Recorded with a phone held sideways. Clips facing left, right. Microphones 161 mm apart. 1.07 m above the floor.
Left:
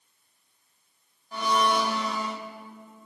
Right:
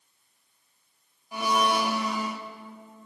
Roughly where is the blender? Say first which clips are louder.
Even; centre.